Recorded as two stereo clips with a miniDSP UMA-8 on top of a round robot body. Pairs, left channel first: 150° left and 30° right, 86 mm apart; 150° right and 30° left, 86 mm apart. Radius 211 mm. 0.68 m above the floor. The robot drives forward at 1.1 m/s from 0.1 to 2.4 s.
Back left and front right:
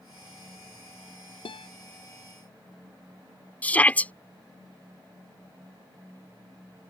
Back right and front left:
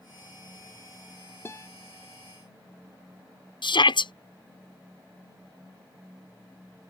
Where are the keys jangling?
No keys jangling in this recording.